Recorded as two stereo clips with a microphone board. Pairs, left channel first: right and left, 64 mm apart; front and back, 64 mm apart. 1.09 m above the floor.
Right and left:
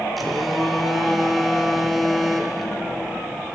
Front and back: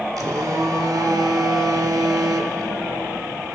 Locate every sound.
0.2 s a phone buzzing: straight behind, 1.7 m